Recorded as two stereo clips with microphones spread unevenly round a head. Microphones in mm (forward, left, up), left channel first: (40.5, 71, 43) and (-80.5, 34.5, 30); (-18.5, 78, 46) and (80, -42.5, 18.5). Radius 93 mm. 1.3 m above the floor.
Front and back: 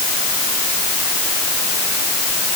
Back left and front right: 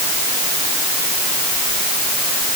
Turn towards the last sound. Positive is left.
No sound to turn to.